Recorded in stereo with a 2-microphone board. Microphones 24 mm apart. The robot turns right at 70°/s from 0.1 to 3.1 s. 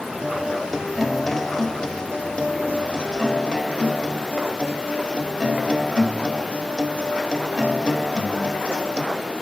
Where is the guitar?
70° right, 1.5 m; by 9.0 s 135° left, 1.5 m.